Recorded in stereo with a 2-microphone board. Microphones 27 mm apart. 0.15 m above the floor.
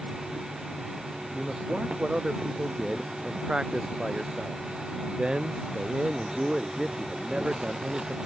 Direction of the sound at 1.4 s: 35° right (ahead or behind).